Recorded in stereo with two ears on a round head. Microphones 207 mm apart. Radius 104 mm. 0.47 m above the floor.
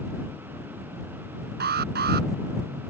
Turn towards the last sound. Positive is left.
turn(degrees=-45)  # may be behind; listen again after turning